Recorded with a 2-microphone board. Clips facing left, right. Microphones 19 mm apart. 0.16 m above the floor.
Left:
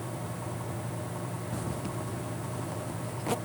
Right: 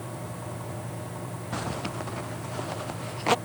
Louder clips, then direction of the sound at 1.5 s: Right 6 dB; 45° right (ahead or behind).